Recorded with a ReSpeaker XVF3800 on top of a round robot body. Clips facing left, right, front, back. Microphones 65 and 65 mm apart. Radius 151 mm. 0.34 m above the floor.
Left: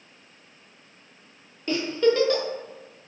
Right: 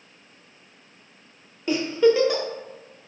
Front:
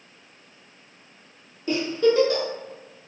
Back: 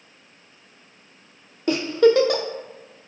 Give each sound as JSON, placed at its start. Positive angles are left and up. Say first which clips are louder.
{"t": 1.7, "sound": "a giggle", "louder": "right 3 dB, back 4 dB", "azimuth_deg": -170, "distance_m": 0.5}